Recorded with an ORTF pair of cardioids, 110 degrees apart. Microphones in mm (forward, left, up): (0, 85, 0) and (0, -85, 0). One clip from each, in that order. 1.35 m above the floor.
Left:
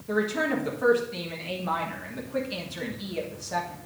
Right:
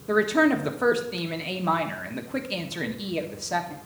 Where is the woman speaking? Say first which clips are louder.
Right 5 dB; 30° right, 1.2 m.